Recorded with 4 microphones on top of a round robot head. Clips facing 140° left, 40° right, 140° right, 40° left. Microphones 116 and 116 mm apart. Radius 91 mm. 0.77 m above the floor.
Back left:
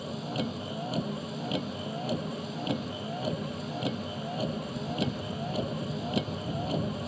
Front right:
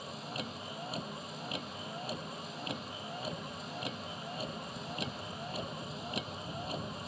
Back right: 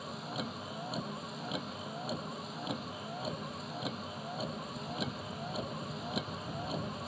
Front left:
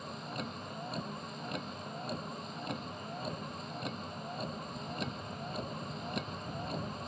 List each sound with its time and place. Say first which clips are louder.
0.0 s a vehicle: back left 9 dB, back right 1 dB; 135° left